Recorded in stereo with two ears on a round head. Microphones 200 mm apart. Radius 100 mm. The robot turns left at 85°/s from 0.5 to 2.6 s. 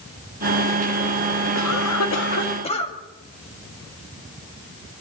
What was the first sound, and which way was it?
A cough, 115° left.